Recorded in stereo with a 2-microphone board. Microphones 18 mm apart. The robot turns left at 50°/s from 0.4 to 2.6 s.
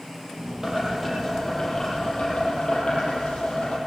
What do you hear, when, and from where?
0.6 s boiling: 150° right, 9 m; by 3.8 s 115° left, 9 m